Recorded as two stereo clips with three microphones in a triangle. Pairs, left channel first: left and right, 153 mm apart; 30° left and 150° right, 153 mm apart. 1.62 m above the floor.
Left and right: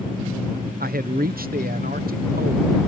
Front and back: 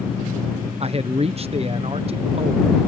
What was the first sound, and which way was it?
A man speaking, 100° right.